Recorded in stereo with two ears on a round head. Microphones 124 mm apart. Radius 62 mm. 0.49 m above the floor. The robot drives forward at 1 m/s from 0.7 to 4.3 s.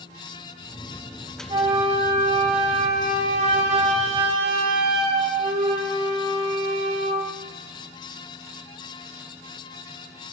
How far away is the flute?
About 3 m.